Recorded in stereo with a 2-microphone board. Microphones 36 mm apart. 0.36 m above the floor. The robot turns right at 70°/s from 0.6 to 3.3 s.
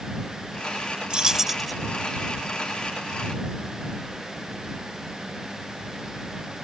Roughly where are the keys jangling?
Ahead right.